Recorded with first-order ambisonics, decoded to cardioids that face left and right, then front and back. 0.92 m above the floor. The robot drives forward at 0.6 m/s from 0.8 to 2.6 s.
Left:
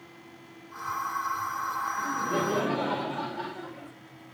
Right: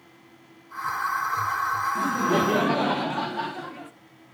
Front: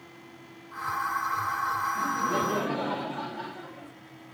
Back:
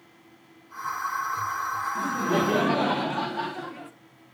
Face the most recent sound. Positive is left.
turn(degrees=-135)